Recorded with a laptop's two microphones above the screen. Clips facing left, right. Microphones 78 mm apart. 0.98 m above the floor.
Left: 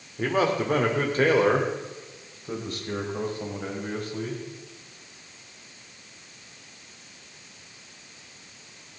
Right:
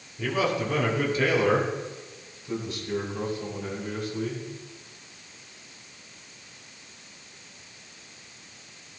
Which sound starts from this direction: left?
A man speaking, at 0.2 s.